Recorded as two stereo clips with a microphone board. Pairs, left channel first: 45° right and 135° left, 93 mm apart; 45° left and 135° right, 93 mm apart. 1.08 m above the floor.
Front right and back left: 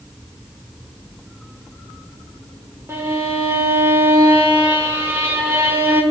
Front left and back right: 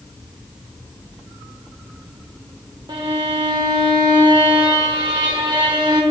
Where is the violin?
165° right, 1.7 m.